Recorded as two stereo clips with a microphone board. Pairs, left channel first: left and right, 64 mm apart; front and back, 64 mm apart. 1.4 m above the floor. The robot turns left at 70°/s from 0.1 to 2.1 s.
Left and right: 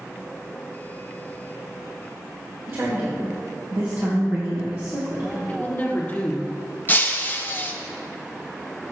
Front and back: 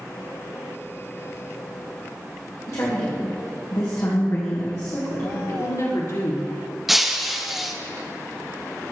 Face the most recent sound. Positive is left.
turn(degrees=95)